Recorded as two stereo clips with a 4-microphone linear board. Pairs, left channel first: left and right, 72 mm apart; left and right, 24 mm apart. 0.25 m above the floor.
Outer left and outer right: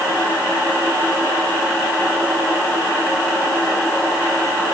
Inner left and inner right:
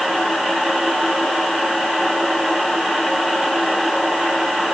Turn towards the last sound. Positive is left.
No sound to turn to.